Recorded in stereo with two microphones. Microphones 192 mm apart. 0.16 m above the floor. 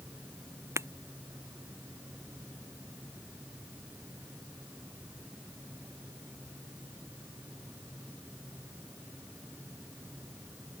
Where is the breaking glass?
15° right (ahead or behind).